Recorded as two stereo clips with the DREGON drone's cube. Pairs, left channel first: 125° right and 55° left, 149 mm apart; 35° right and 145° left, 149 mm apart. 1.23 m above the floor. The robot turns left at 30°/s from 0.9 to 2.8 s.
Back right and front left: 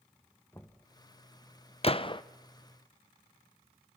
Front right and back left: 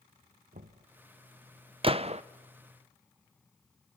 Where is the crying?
No crying in this recording.